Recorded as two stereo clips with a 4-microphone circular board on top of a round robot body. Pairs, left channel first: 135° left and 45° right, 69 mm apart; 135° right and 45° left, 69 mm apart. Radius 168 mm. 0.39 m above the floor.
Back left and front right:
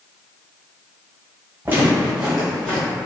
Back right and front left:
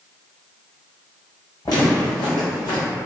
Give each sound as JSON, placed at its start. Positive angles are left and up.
{"t": 1.6, "sound": "footsteps", "azimuth_deg": -110, "distance_m": 1.4}